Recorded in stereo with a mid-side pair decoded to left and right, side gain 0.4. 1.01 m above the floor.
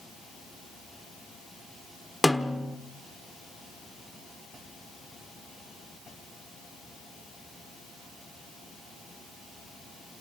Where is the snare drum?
Straight ahead, 1.3 m.